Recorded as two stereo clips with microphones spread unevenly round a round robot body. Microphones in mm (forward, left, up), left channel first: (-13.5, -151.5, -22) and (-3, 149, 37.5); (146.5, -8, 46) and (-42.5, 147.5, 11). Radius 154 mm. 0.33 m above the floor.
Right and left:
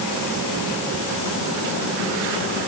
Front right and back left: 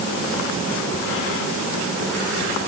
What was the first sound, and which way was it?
Only background noise.